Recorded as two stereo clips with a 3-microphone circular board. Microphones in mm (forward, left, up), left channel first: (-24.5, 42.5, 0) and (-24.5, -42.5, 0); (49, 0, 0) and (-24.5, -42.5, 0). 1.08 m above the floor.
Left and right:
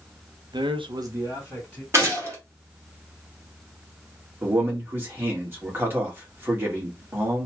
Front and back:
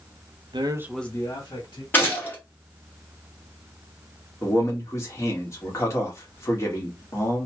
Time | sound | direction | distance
0.5 | a man speaking | 125° right | 0.7 m
1.9 | a gunshot | 35° right | 1.4 m
4.4 | a man speaking | 25° right | 1.4 m